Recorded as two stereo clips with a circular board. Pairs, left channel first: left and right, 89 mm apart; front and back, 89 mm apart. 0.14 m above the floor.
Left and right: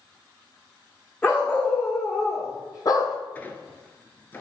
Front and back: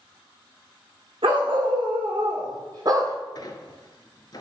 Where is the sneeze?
No sneeze in this recording.